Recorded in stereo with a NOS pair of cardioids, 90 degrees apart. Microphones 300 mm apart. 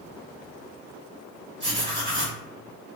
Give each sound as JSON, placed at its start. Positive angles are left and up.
{"t": 1.6, "sound": "writing", "azimuth_deg": -40, "distance_m": 1.3}